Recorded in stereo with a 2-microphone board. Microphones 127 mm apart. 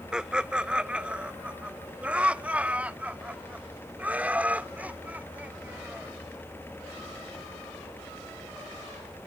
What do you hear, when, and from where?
0.1 s laughter: 5° right (ahead or behind); by 6.1 s 15° right (ahead or behind)